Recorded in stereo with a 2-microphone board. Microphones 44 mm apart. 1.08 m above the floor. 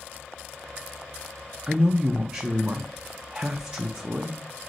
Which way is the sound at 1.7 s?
25° right (ahead or behind).